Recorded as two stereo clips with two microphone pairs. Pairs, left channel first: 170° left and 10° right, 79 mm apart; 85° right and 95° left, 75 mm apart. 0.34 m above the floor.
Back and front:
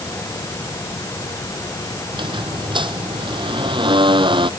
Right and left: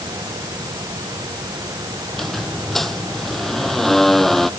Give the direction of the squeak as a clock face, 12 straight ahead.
12 o'clock.